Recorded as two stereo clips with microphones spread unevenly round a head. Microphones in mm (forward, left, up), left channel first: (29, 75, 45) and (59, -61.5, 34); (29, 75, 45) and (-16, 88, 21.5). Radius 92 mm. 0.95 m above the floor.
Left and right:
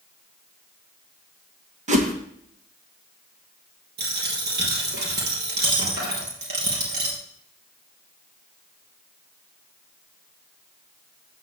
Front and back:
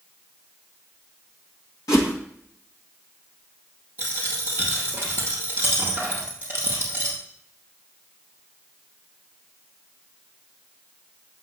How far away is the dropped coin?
About 3.5 m.